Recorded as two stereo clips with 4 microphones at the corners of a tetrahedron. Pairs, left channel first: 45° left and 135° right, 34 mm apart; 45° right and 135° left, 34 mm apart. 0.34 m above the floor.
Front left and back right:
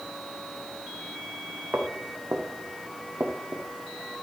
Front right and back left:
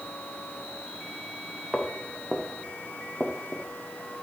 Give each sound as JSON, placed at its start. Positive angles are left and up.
{"t": 1.7, "sound": "footsteps", "azimuth_deg": -145, "distance_m": 3.0}